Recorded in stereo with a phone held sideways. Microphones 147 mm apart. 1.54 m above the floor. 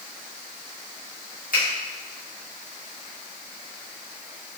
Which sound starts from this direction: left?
A finger snap, at 1.5 s.